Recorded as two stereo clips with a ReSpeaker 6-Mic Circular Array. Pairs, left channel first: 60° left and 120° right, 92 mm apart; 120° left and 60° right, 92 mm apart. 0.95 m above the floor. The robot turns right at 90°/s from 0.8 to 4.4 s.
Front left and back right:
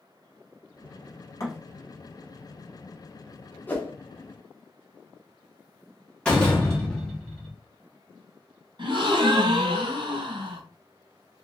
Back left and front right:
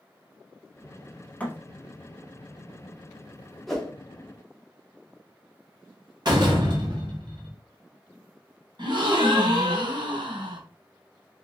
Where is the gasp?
90° right, 1.9 m.